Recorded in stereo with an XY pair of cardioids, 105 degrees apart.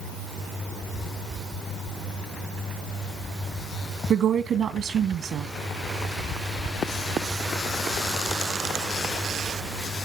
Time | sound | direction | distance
4.1 | a woman speaking | 65° right | 1.7 m